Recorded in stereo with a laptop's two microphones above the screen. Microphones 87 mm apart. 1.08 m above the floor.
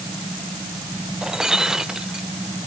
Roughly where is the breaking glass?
Centre.